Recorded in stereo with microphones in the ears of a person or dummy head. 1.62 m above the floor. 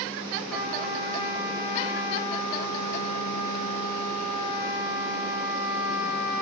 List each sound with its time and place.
0.5 s a trumpet: 5° left (ahead or behind), 1.0 m